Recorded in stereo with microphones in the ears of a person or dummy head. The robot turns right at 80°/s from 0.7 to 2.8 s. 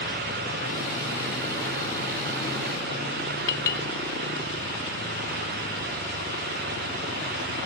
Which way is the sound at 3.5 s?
20° left (ahead or behind).